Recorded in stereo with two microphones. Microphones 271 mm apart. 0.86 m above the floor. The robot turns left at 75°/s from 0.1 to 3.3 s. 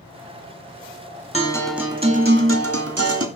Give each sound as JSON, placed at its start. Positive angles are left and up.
{"t": 1.3, "sound": "a guitar", "azimuth_deg": 30, "distance_m": 2.0}